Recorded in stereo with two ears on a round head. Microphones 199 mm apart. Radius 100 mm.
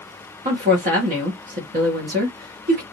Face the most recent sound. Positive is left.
turn(degrees=-40)  # may be behind; listen again after turning